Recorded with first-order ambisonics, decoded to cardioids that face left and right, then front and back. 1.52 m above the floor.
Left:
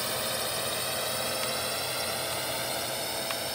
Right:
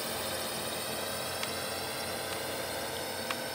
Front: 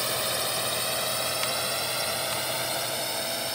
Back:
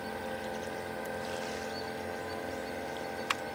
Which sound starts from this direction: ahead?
A drone, at 0.0 s.